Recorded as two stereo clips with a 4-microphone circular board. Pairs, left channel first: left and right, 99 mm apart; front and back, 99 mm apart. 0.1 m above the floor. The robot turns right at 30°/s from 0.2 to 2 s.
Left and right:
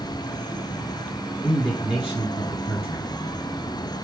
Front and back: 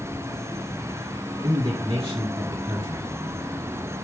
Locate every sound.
1.4 s a man speaking: 175° right, 1.6 m; by 3.0 s 155° right, 1.6 m